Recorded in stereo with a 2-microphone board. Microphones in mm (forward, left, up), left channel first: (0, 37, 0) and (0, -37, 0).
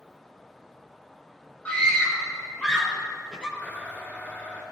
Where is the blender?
30° left (ahead or behind), 6.5 m.